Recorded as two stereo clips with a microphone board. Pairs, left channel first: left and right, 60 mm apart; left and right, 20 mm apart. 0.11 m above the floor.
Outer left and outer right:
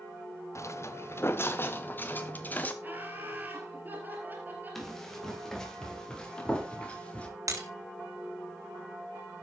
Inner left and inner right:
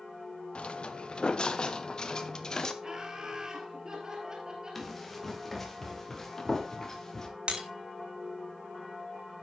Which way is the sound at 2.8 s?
30° right (ahead or behind).